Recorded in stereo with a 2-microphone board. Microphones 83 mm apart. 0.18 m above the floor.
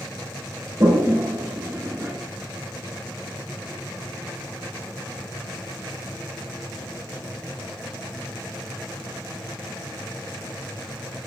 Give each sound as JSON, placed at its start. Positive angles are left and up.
{"t": 0.8, "sound": "a toilet flushing", "side_deg": -30, "distance_m": 0.7}